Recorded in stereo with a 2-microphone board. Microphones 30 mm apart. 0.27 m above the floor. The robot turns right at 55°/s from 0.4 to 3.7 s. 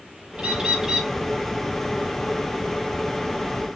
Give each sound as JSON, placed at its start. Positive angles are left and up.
{"t": 0.4, "sound": "a bird", "azimuth_deg": -60, "distance_m": 1.0}